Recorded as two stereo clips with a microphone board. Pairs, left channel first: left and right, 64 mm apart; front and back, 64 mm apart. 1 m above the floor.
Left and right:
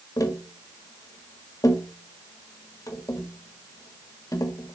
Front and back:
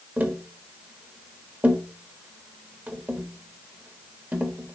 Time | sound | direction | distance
0.2 | tapping | 120° left | 1.3 m